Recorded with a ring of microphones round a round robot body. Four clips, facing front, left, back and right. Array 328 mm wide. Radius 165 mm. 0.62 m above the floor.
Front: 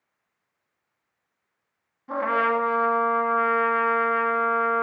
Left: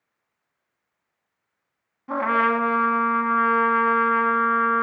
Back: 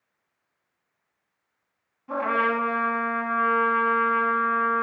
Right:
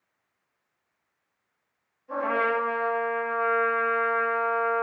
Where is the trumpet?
80° left, 1.3 m.